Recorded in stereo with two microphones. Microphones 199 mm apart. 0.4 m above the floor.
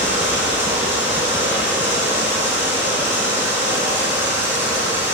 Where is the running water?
10° right (ahead or behind), 5.5 m.